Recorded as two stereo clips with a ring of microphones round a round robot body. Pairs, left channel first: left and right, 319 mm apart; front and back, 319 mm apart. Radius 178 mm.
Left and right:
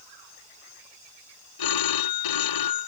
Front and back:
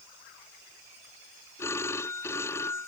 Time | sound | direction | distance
1.6 | a phone ringing | 85° left | ?